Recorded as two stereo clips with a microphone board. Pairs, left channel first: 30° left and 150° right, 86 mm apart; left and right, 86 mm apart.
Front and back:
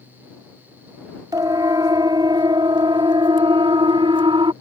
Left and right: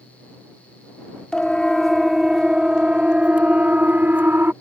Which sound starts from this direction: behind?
A siren, at 1.3 s.